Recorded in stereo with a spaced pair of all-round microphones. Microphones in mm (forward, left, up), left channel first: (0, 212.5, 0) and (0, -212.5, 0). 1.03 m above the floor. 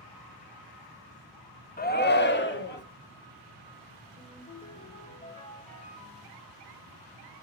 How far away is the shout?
About 0.7 m.